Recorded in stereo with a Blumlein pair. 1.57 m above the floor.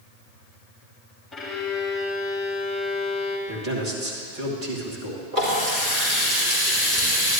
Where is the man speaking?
30° right, 2.5 m.